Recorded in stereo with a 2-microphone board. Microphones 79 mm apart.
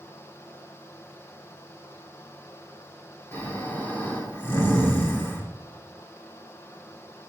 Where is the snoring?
30° left (ahead or behind), 2.5 m.